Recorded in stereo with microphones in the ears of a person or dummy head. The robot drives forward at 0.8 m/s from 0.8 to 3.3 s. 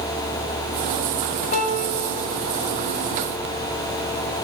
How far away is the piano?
About 1.8 m.